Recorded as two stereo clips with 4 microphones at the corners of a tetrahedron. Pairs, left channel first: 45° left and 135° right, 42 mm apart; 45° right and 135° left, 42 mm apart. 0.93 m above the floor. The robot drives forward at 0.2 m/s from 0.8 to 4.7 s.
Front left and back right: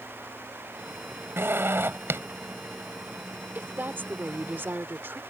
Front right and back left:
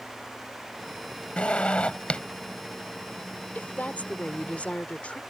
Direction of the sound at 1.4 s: 105° right.